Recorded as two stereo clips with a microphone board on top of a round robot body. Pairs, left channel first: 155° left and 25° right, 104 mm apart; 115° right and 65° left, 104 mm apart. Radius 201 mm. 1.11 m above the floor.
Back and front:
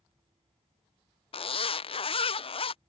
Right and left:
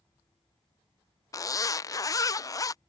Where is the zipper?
170° right.